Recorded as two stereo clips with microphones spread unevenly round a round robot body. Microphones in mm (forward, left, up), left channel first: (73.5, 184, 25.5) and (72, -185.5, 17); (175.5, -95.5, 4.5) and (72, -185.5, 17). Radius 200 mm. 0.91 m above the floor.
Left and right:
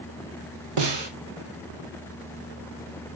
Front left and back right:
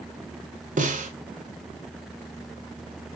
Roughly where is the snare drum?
Behind right.